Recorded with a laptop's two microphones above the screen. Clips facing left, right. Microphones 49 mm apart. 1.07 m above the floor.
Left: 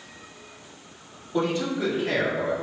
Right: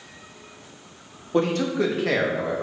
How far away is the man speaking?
About 0.9 m.